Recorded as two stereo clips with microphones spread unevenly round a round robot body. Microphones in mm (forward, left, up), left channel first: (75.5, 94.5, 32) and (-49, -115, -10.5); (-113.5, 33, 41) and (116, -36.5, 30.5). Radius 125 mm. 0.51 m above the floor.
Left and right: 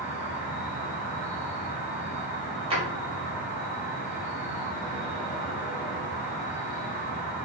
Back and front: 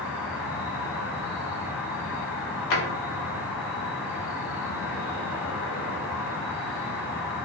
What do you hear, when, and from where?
0.0 s an insect: 125° left, 0.8 m
2.7 s a drawer: straight behind, 0.9 m